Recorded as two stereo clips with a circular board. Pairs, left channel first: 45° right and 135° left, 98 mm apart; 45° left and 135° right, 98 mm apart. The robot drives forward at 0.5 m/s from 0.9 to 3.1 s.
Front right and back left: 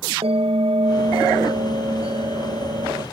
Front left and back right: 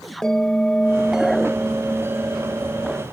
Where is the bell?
130° left, 0.5 m; by 3.0 s 165° left, 1.4 m.